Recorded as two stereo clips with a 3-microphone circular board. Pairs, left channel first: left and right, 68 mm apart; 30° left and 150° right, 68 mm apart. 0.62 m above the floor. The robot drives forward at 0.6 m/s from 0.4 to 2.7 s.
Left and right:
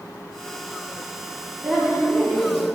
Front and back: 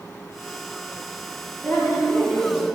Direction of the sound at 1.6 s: 60° right.